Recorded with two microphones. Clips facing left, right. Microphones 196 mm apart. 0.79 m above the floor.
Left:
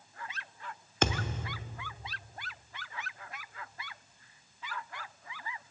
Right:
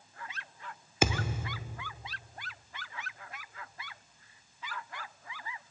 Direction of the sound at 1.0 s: 10° right (ahead or behind).